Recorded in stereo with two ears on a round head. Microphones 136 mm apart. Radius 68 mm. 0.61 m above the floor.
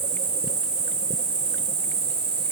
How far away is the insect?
About 2 m.